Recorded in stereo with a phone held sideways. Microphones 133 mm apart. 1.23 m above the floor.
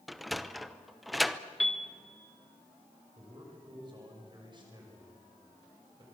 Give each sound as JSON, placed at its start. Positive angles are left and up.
{"t": 0.1, "sound": "a sliding door", "side_deg": 0, "distance_m": 0.7}
{"t": 1.6, "sound": "a piano", "side_deg": 0, "distance_m": 1.6}
{"t": 3.1, "sound": "a man speaking", "side_deg": -35, "distance_m": 7.0}